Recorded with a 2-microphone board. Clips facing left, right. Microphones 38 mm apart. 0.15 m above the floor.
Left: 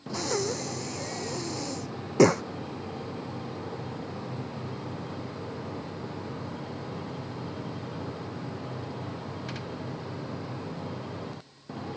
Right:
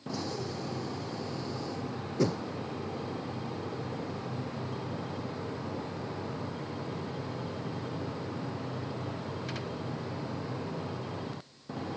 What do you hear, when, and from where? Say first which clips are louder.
0.1 s breathing: left 8 dB; 75° left (ahead or behind)